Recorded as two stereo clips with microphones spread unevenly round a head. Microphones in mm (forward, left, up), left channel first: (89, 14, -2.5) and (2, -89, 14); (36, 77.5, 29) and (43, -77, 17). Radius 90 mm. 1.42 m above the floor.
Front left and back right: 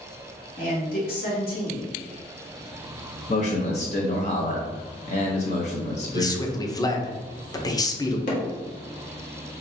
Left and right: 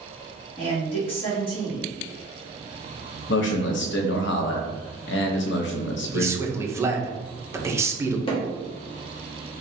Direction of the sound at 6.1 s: 15° right.